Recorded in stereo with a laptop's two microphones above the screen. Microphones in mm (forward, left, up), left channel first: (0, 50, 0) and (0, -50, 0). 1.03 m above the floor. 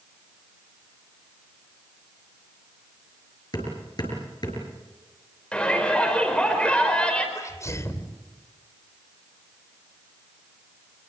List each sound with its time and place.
3.5 s hammering: 45° left (ahead or behind), 6 m
5.5 s a shout: 10° left (ahead or behind), 4.5 m
7.3 s a sneeze: 30° left (ahead or behind), 3.5 m